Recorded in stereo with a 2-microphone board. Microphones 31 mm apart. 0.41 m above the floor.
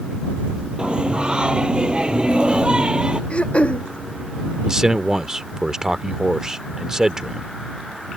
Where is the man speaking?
20° right (ahead or behind).